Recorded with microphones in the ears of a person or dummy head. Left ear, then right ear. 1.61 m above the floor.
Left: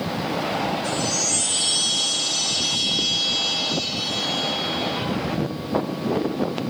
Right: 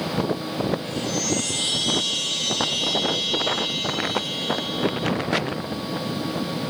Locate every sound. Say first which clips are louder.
0.8 s a chime: left 3 dB; 80° left, 5.5 m